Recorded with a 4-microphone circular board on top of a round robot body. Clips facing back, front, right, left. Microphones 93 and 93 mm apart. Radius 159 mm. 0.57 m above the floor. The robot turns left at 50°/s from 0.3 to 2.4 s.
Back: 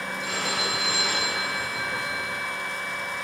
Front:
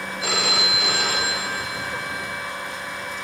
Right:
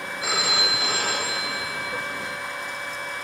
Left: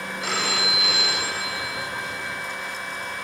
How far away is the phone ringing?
About 3 m.